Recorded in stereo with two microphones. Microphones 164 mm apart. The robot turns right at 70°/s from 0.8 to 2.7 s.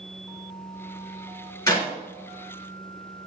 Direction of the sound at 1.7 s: 20° left (ahead or behind).